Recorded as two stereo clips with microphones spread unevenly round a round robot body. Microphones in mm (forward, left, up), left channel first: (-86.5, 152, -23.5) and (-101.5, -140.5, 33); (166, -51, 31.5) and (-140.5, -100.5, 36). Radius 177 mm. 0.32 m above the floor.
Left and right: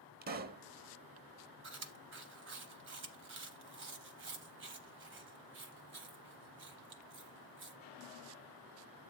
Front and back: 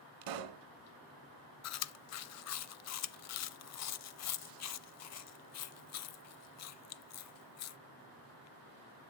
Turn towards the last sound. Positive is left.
turn(degrees=-30)